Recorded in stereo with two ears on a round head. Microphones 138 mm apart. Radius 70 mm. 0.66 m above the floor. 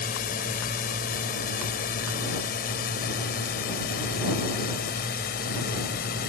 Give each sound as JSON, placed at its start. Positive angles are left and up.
{"t": 0.0, "sound": "a drone", "side_deg": 60}